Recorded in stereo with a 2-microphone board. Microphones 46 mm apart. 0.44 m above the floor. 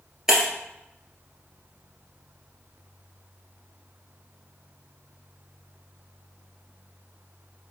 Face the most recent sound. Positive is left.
turn(degrees=-10)  # may be behind; listen again after turning